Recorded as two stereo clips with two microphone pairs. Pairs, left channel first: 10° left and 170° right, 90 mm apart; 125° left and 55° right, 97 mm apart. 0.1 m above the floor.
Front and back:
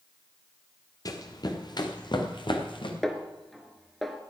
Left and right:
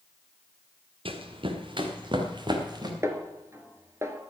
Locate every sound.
1.1 s running footsteps: 35° right, 1.8 m; by 2.9 s 15° right, 2.5 m
3.0 s a snare drum: 75° right, 1.1 m